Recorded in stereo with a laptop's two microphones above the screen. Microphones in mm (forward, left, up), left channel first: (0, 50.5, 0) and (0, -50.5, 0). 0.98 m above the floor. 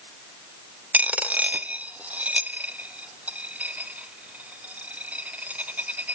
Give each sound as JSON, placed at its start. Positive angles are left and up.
{"t": 0.9, "sound": "a dropped coin", "side_deg": -15, "distance_m": 1.1}